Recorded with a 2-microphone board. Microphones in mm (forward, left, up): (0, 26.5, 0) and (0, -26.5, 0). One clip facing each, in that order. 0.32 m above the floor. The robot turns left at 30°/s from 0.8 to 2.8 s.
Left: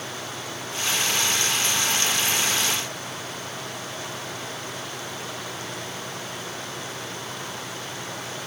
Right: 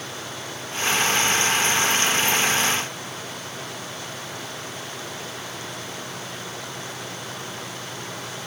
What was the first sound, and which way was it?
Only background noise.